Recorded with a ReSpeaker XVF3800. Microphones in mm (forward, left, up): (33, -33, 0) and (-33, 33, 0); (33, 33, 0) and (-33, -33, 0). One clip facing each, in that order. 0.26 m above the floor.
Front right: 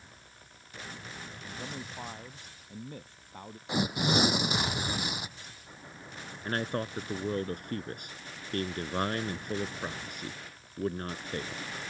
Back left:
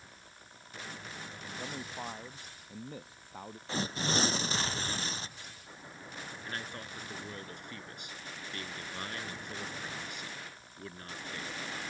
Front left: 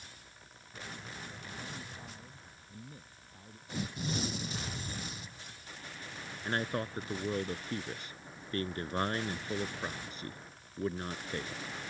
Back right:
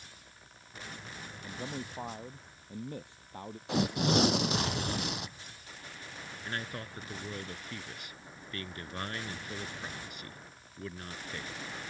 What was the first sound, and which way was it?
A man speaking, 140° right.